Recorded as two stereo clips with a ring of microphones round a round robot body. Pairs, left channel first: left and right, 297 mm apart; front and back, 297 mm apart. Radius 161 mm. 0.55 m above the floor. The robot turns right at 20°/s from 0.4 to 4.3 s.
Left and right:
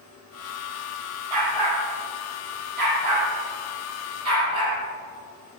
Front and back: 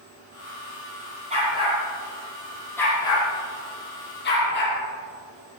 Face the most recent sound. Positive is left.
turn(degrees=-50)